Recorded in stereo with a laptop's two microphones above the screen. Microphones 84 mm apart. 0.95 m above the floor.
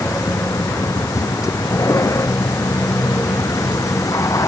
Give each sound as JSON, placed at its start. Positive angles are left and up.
{"t": 0.0, "sound": "a vehicle", "side_deg": 40}